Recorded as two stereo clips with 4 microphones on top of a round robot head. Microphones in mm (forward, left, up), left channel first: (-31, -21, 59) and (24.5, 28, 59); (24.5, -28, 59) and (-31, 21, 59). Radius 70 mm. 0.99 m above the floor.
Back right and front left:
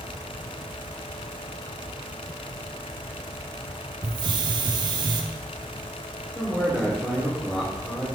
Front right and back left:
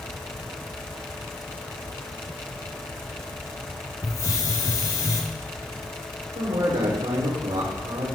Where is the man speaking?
140° left, 5 m.